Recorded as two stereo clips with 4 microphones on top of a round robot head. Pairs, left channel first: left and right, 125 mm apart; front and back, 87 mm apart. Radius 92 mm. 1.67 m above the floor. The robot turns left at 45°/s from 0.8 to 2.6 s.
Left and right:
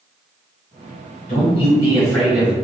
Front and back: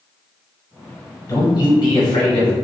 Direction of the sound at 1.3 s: 50° left.